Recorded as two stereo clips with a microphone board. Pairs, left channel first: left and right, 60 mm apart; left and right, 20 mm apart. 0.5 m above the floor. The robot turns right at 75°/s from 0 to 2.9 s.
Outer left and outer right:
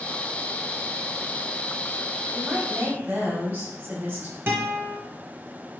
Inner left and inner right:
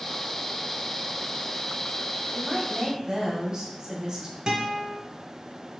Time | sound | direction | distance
2.3 | a woman speaking | 145° right | 0.9 m
4.5 | a guitar | 35° right (ahead or behind) | 0.6 m